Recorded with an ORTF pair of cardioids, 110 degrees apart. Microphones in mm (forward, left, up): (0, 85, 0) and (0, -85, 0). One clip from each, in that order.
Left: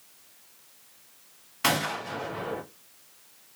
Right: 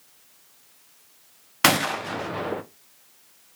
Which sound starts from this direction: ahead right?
A gunshot, at 1.6 s.